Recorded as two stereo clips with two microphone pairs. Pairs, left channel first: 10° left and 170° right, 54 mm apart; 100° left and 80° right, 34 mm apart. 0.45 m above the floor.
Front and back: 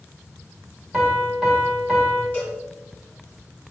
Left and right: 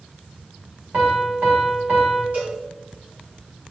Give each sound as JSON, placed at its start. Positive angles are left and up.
{"t": 0.9, "sound": "a piano", "azimuth_deg": -80, "distance_m": 1.2}
{"t": 2.3, "sound": "a cowbell", "azimuth_deg": -50, "distance_m": 2.0}